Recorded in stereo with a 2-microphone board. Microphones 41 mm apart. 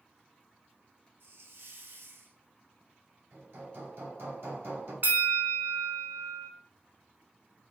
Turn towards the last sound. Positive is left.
turn(degrees=-50)  # may be behind; listen again after turning